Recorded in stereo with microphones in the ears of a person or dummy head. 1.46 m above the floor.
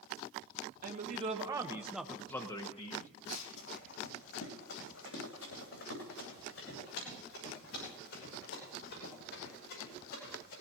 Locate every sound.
0.8 s a man speaking: 40° right (ahead or behind), 1.4 m; by 3.1 s 50° left (ahead or behind), 1.4 m
3.3 s running footsteps: 60° left (ahead or behind), 3.5 m; by 10.5 s 75° left (ahead or behind), 12 m